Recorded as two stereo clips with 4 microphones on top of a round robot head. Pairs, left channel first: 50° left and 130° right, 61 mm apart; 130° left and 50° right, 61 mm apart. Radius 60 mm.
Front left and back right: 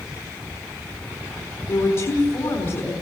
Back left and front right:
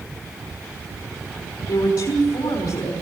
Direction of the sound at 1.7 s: 80° left.